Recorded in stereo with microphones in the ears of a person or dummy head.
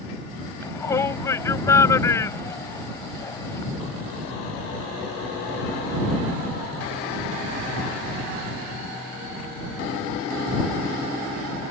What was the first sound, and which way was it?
A shout, 20° left (ahead or behind).